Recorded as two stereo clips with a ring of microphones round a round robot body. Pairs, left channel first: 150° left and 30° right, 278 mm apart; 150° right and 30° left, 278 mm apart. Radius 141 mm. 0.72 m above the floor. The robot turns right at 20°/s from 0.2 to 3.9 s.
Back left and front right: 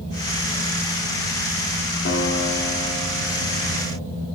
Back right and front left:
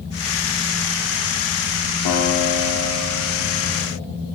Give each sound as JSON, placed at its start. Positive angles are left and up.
{"t": 2.0, "sound": "a guitar", "azimuth_deg": -160, "distance_m": 1.4}